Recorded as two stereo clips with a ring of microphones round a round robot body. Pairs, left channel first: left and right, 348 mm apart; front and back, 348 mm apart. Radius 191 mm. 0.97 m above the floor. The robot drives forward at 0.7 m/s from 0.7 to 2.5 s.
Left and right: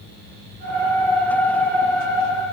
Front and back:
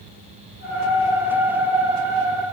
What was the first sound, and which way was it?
Only background noise.